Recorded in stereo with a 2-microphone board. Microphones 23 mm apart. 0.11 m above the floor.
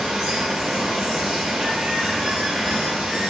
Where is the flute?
I don't hear a flute.